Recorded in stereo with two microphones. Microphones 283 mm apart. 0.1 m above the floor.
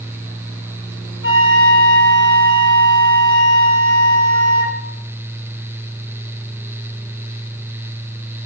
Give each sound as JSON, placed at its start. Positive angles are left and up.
{"t": 1.2, "sound": "a flute", "side_deg": 45, "distance_m": 3.0}